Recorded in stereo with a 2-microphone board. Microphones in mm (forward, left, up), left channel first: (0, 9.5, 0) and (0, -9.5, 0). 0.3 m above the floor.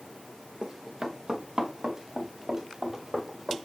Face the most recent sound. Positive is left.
turn(degrees=-15)  # may be behind; listen again after turning